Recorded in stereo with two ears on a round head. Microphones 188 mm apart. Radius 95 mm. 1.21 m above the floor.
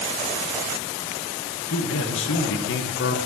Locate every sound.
1.7 s a man speaking: 70° left (ahead or behind), 1.8 m; by 3.2 s 55° left (ahead or behind), 1.1 m